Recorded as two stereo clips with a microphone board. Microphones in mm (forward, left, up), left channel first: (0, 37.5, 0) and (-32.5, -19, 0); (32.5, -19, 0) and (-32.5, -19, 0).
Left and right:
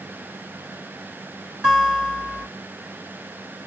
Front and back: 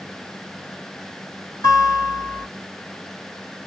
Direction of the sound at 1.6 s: 30° right.